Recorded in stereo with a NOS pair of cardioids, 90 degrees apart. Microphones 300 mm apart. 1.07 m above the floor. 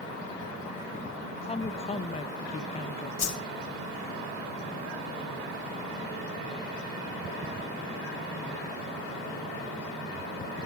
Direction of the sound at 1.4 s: 20° left.